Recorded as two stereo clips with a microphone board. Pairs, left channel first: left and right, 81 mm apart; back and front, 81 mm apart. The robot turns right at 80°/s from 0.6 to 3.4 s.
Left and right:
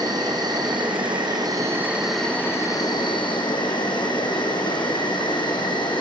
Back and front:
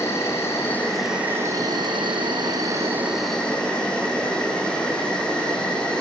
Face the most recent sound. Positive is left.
turn(degrees=100)